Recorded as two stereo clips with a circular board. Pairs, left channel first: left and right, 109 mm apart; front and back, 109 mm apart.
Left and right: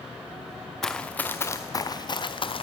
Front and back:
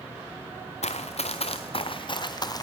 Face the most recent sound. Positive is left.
turn(degrees=55)